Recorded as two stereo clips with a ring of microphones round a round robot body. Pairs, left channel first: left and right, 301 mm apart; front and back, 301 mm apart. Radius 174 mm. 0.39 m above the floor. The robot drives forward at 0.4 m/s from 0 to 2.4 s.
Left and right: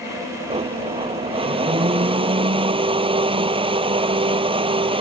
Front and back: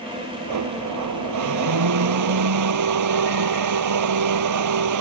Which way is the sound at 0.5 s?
160° right.